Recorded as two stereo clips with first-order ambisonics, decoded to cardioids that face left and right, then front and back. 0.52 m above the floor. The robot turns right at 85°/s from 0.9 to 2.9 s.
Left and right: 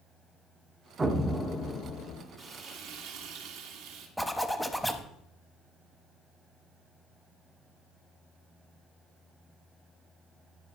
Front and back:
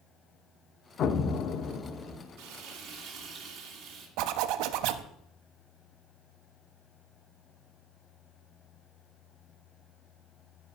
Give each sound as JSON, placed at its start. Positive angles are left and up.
{"t": 1.0, "sound": "an explosion", "azimuth_deg": -30, "distance_m": 0.6}
{"t": 2.4, "sound": "frying", "azimuth_deg": -165, "distance_m": 1.8}
{"t": 4.2, "sound": "a zipper", "azimuth_deg": 180, "distance_m": 0.6}